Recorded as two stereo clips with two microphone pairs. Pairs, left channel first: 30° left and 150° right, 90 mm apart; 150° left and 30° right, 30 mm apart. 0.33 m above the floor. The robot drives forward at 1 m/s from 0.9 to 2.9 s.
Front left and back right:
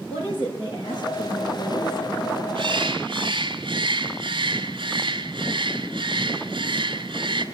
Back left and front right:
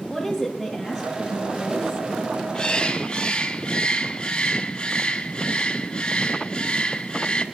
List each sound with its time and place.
0.1 s a woman speaking: 60° left, 7 m; by 2.0 s 70° left, 6.5 m
2.5 s a bird: 155° right, 1.2 m; by 7.4 s 160° right, 1.5 m